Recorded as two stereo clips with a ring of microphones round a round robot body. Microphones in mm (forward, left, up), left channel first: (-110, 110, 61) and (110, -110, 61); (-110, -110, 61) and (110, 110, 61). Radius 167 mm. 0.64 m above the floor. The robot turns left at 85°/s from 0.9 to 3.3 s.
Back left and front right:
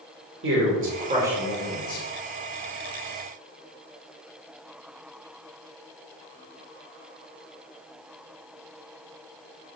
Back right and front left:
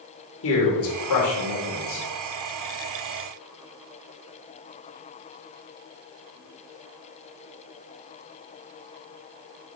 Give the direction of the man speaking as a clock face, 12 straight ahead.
3 o'clock.